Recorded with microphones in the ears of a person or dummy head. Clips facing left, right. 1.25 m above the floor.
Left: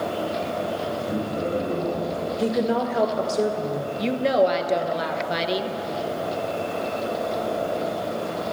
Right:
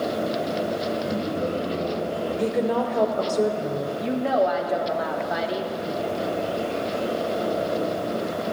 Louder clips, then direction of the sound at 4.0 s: Left 3 dB; 40° left (ahead or behind).